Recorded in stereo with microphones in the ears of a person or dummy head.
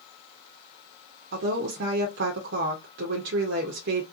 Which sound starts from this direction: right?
A woman speaking, at 1.3 s.